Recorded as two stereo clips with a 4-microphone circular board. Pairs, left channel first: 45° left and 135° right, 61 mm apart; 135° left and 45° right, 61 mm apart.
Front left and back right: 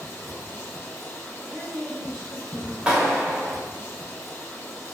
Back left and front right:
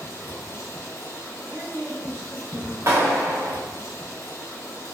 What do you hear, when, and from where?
0.0 s running water: 100° left, 1.5 m
1.5 s a woman speaking: 45° right, 1.4 m
2.9 s a clap: 65° right, 0.9 m